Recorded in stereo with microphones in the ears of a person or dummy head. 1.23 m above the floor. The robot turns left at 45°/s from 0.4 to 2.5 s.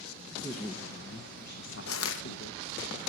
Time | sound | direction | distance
0.3 | a woman speaking | 175° left | 1.2 m
1.9 | crushing | 80° left | 1.3 m